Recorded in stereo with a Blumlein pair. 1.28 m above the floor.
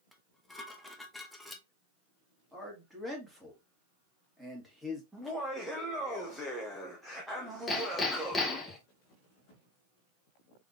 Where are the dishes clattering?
5° left, 1.0 m.